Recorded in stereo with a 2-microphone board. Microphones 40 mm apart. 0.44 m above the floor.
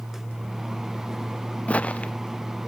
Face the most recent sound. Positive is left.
turn(degrees=30)  # may be behind; listen again after turning